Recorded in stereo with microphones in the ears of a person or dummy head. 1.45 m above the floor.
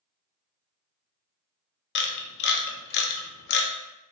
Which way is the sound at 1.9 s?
60° left (ahead or behind).